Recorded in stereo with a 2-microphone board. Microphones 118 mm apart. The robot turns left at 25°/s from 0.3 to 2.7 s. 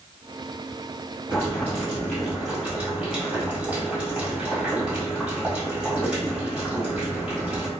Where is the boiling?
30° left, 1.5 m; by 7.7 s 5° right, 1.5 m.